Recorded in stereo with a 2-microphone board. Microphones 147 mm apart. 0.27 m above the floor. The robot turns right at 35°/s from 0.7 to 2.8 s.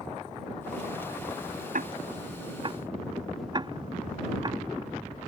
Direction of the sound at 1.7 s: 65° right (ahead or behind).